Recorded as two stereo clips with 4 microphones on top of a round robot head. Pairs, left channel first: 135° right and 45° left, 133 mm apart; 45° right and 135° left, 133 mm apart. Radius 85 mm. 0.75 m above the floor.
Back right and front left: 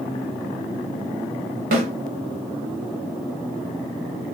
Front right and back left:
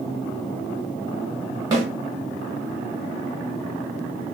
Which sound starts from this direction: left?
A snare drum, at 1.7 s.